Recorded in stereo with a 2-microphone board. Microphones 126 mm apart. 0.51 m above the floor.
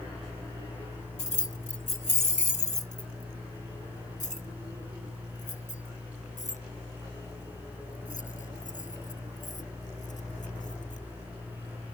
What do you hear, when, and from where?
1.2 s keys jangling: 60° left (ahead or behind); by 11.0 s 75° left (ahead or behind)